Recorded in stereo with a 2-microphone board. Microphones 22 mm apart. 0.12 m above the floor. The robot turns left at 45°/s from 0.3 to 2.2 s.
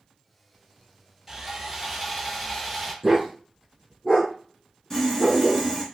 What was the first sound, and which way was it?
Sawing, 150° right.